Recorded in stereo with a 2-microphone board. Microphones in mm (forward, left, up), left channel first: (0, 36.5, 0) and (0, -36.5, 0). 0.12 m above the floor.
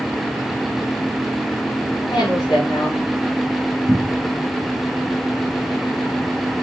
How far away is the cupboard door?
About 0.8 m.